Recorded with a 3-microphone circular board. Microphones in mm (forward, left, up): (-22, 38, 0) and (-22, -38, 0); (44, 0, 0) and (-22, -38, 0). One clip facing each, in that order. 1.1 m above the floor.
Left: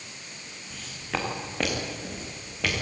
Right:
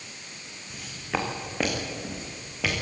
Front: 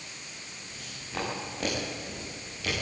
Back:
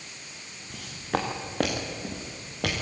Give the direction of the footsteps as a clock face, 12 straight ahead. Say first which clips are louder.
Right 2 dB, back 10 dB; 6 o'clock.